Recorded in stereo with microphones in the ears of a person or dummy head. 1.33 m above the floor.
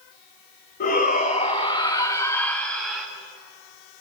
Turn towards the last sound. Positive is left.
turn(degrees=0)  # may be behind; listen again after turning